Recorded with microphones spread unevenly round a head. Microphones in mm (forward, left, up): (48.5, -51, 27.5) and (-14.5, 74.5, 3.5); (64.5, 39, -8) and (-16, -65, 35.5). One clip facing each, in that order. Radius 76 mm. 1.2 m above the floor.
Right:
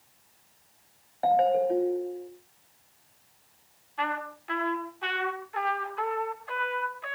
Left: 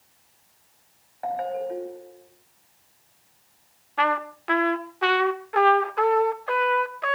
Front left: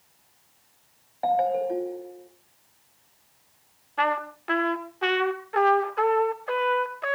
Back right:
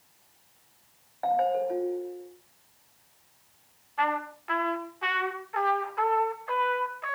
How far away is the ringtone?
About 3 m.